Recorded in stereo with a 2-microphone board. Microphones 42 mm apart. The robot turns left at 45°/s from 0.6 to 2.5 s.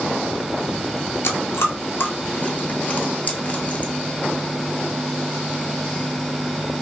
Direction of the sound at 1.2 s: 75° left (ahead or behind).